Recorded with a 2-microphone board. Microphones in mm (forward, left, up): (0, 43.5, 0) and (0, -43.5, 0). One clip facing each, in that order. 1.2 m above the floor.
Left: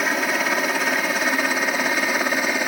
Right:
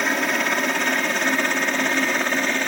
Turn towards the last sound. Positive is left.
turn(degrees=10)  # may be behind; listen again after turning